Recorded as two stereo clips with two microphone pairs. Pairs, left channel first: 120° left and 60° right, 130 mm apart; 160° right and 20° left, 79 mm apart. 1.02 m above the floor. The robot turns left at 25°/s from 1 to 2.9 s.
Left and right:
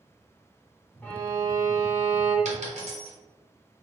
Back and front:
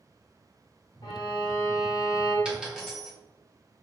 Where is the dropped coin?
55° right, 1.9 m; by 3.1 s 65° right, 1.9 m.